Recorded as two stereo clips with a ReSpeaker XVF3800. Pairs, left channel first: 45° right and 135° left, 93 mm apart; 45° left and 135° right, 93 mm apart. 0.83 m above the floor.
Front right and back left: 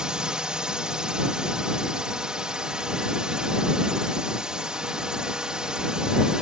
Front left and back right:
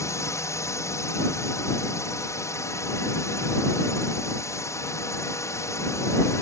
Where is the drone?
60° left.